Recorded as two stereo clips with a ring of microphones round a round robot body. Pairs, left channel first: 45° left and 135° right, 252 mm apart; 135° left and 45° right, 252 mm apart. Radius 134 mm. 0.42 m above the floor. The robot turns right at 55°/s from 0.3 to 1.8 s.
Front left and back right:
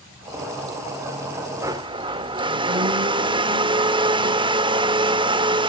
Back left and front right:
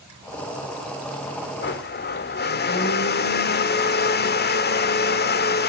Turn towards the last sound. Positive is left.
turn(degrees=160)